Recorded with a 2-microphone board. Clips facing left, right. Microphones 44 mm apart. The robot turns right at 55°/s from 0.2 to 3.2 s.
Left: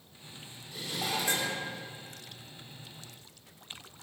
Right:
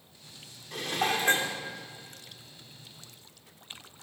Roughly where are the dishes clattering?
Right.